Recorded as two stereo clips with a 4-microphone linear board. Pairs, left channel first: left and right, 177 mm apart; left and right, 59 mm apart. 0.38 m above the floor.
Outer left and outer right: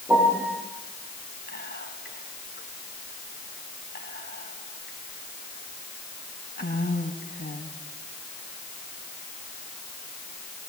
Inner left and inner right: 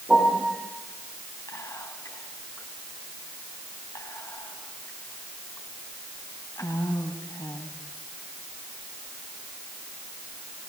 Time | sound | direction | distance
0.1 | a piano | 10° right (ahead or behind) | 6.5 m
1.5 | whispering | 65° left (ahead or behind) | 3.5 m